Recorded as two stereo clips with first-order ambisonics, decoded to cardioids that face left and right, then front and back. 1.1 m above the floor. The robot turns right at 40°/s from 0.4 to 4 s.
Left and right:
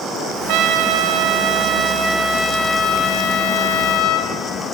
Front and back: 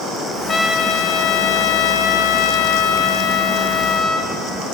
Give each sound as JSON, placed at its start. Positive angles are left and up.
{"t": 0.5, "sound": "a trumpet", "azimuth_deg": -75, "distance_m": 1.9}